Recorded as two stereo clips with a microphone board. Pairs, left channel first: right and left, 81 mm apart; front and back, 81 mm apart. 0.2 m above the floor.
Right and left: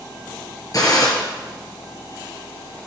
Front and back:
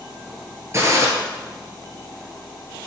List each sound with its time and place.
0.7 s a gunshot: 125° right, 2 m